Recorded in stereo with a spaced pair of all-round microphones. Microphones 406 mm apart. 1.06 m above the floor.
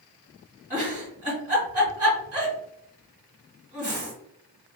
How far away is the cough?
No cough in this recording.